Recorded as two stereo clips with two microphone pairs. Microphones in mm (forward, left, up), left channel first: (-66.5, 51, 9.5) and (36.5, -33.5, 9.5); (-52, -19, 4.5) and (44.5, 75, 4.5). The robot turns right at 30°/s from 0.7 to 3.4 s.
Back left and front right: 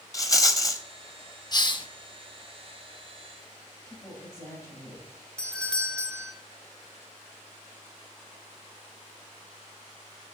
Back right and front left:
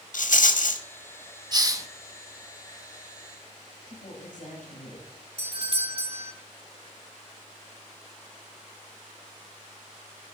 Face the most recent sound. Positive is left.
turn(degrees=60)